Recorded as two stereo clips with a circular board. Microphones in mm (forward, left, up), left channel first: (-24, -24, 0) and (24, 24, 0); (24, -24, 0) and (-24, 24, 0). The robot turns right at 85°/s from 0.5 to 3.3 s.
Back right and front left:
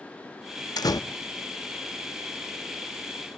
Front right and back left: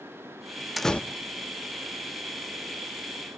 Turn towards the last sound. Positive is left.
turn(degrees=80)